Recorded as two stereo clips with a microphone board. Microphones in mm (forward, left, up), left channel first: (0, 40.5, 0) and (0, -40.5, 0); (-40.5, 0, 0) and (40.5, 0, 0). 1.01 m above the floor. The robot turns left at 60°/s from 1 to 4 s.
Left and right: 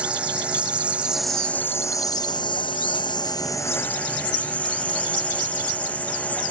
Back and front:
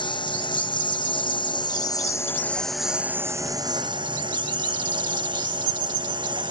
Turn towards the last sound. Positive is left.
turn(degrees=20)